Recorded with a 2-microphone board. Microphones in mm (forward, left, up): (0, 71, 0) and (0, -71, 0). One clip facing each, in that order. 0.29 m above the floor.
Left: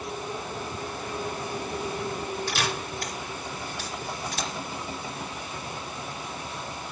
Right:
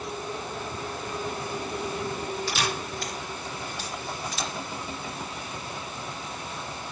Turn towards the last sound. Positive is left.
turn(degrees=50)  # may be behind; listen again after turning